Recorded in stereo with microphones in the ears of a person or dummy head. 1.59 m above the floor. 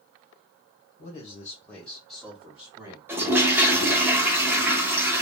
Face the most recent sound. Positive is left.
turn(degrees=-10)  # may be behind; listen again after turning